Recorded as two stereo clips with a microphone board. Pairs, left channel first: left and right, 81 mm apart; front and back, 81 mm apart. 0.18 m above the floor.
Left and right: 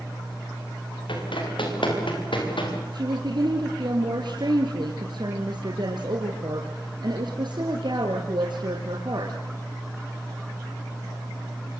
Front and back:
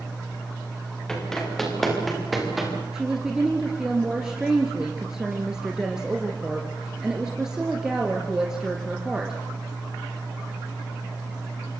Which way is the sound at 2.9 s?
100° right.